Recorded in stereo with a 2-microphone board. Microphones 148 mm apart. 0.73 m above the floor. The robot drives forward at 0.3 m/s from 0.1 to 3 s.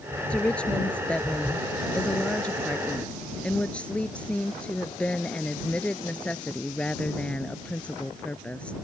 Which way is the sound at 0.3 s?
5° left (ahead or behind).